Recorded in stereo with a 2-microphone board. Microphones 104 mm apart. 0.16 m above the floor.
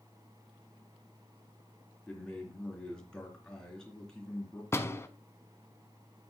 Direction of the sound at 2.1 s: 5° left (ahead or behind).